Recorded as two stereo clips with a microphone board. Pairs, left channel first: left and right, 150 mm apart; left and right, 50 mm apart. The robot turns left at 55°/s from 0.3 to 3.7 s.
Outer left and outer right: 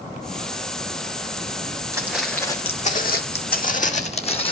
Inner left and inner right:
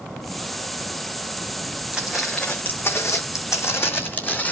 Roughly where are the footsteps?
Right.